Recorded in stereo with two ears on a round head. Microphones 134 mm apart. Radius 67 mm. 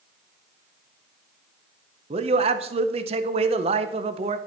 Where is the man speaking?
40° right (ahead or behind), 0.7 m.